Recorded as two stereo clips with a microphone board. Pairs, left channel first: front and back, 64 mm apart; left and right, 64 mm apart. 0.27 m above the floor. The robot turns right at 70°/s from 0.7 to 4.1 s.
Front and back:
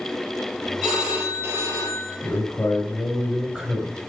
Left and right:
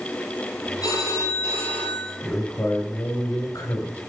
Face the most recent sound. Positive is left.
turn(degrees=150)